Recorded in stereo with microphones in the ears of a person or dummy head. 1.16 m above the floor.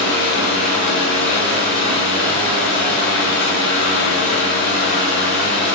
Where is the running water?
60° left (ahead or behind), 5 m.